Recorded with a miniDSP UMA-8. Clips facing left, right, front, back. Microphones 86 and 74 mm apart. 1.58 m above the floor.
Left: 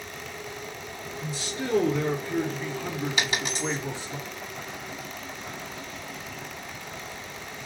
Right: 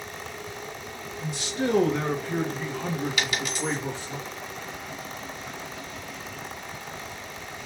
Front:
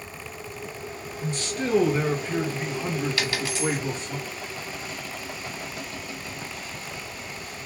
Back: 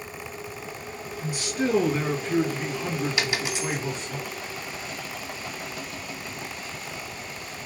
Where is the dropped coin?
125° left, 1.1 m.